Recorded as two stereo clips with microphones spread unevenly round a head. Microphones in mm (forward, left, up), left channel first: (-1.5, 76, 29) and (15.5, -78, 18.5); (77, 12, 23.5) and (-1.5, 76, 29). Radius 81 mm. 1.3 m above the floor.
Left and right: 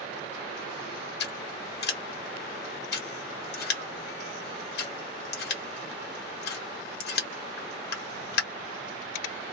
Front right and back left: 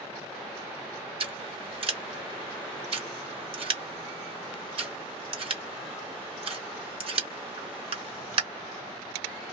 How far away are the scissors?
About 1.4 m.